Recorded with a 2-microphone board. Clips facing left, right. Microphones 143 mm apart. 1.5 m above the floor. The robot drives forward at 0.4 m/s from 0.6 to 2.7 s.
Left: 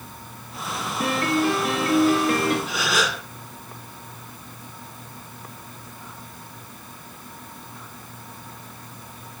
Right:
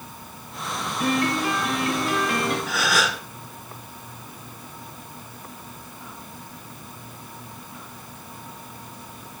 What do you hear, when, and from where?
1.0 s a piano: 35° left (ahead or behind), 6 m; by 2.6 s 40° left (ahead or behind), 5.5 m
2.7 s a gasp: 20° left (ahead or behind), 5 m